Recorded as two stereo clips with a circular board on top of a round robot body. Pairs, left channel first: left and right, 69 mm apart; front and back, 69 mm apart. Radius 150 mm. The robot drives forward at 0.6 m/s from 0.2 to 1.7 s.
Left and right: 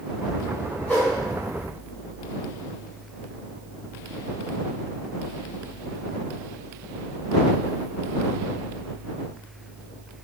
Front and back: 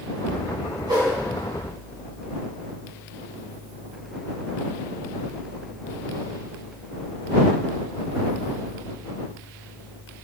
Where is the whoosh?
165° left, 1.5 m.